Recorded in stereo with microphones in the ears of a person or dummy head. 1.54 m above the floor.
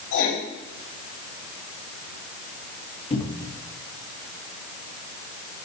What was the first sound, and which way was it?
Writing, 70° left (ahead or behind).